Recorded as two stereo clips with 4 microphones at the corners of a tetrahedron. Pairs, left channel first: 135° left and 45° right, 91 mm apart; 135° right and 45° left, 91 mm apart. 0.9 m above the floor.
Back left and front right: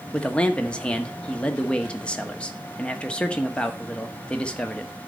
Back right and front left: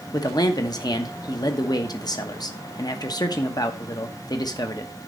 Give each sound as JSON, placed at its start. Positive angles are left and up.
{"t": 0.1, "sound": "a man speaking", "azimuth_deg": -150, "distance_m": 1.2}